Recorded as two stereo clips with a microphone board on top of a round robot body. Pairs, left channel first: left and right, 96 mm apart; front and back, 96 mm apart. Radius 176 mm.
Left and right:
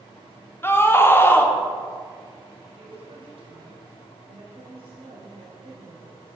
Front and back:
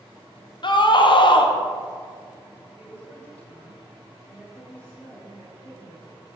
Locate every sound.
0.6 s a scream: 30° left, 1.8 m
2.8 s a woman speaking: 75° right, 4.5 m